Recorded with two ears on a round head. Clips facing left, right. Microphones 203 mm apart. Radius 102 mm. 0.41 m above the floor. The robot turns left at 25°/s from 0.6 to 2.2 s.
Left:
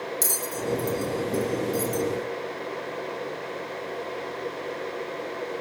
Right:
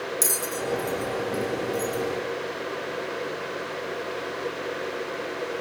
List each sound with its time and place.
0.2 s a bell: 5° left (ahead or behind), 1.9 m; by 2.0 s 40° left (ahead or behind), 1.9 m